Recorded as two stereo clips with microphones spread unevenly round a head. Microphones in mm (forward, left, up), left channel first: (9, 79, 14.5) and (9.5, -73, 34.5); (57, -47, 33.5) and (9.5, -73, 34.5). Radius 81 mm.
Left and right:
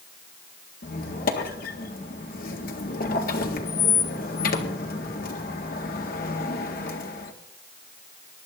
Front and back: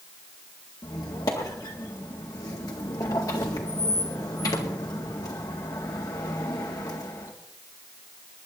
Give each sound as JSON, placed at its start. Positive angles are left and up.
{"t": 0.8, "sound": "a squeak", "azimuth_deg": 60, "distance_m": 1.8}